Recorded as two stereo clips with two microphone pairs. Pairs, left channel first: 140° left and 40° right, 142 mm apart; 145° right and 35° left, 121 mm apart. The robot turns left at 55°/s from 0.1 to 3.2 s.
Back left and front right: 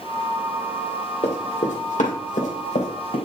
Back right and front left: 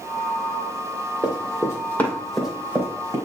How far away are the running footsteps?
About 2.0 m.